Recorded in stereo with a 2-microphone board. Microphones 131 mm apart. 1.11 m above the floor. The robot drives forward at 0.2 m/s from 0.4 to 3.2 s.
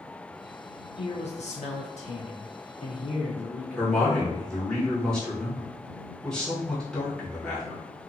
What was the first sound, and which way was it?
A man speaking, 55° left (ahead or behind).